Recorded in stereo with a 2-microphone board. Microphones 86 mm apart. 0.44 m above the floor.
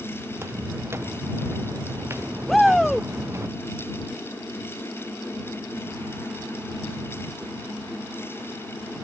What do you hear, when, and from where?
0.3 s footsteps: 30° right (ahead or behind)
2.5 s a shout: centre (ahead or behind)